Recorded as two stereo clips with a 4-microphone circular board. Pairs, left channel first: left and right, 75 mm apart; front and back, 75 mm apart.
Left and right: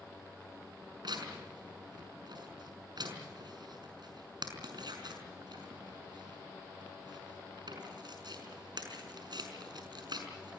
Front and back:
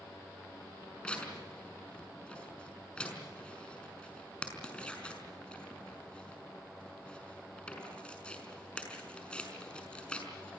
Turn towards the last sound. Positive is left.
turn(degrees=-75)